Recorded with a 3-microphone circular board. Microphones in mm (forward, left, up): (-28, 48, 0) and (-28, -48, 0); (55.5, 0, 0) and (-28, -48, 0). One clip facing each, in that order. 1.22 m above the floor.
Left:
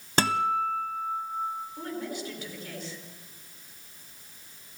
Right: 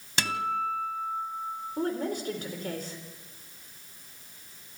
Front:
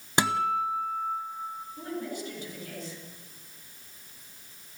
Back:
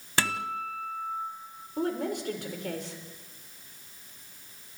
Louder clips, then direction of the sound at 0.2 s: Left 4 dB, front 5 dB; 90° left.